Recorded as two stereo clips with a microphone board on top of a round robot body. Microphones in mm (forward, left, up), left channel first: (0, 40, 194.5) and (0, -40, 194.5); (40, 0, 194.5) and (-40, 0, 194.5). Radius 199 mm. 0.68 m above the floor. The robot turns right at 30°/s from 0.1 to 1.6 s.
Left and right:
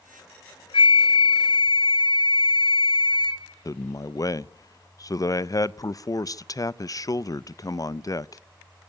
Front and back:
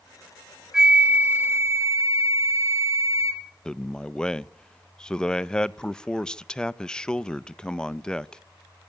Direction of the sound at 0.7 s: 95° left.